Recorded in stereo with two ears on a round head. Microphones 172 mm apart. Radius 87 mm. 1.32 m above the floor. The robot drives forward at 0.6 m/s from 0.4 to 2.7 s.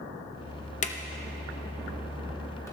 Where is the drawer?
40° left (ahead or behind), 0.7 m; by 2.7 s 15° left (ahead or behind), 1.6 m.